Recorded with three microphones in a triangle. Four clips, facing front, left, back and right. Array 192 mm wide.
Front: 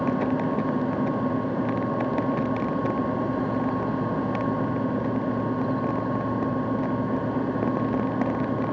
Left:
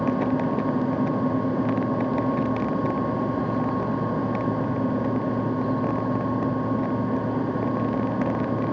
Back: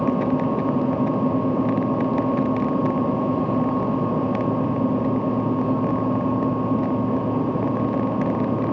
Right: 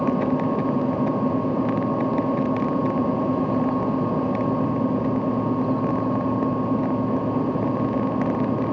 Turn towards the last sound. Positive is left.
No sound to turn to.